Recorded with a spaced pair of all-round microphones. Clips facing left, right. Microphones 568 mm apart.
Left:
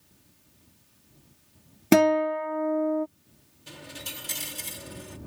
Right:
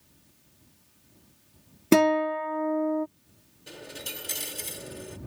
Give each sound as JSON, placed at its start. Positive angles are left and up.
{"t": 1.9, "sound": "a guitar", "side_deg": 15}
{"t": 3.7, "sound": "a dropped coin", "side_deg": 30}